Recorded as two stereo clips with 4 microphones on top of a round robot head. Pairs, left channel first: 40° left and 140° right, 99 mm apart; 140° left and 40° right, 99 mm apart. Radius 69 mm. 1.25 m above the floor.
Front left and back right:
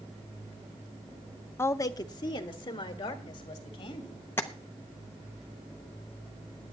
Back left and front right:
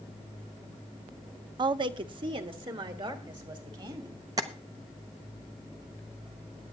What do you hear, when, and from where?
1.6 s a woman speaking: 20° right, 0.5 m; by 4.2 s straight ahead, 3 m
4.4 s tapping: 15° right, 0.5 m